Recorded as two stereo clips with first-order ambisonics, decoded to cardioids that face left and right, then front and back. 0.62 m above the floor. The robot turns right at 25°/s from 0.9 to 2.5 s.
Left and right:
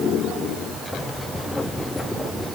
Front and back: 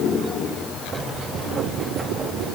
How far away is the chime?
No chime in this recording.